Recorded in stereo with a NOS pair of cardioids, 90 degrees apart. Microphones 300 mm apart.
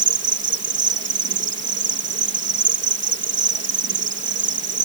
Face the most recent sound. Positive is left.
turn(degrees=-40)